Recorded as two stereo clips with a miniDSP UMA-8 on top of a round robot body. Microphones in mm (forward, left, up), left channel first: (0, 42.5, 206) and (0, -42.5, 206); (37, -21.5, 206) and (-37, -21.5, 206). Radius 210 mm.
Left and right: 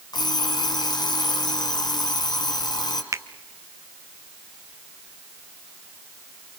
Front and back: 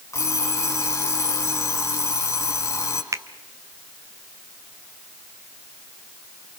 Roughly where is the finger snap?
Behind right.